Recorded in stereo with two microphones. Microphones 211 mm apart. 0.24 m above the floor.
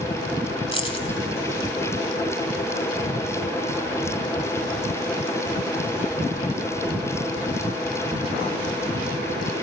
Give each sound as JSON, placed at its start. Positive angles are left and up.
{"t": 0.7, "sound": "keys jangling", "side_deg": 25, "distance_m": 1.4}